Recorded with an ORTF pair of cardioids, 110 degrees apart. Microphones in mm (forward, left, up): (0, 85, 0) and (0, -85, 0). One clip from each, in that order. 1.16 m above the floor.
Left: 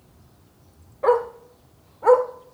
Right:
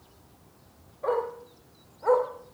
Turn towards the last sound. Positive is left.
turn(degrees=50)